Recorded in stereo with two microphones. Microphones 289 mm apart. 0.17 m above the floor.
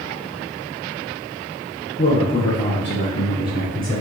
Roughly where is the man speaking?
Left.